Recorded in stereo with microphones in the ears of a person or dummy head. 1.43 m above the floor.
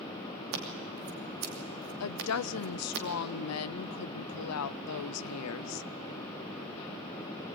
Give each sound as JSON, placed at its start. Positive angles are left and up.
{"t": 0.5, "sound": "scissors", "side_deg": -65, "distance_m": 2.5}
{"t": 2.0, "sound": "a woman speaking", "side_deg": 75, "distance_m": 0.5}